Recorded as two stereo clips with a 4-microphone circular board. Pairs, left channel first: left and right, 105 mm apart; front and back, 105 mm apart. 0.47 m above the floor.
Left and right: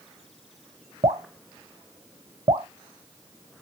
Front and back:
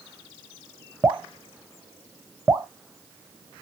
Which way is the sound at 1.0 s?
115° right.